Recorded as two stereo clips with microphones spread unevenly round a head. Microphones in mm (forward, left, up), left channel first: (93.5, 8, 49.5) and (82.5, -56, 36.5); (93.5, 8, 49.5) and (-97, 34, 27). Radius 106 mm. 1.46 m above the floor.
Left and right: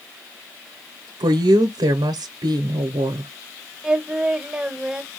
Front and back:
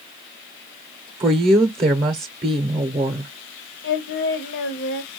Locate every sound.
1.2 s a woman speaking: 120° right, 0.6 m
3.8 s singing: 25° right, 0.8 m